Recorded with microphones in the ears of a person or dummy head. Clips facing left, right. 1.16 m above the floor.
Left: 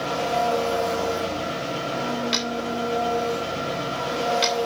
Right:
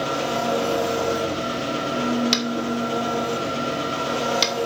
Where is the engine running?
50° right (ahead or behind), 2.5 m.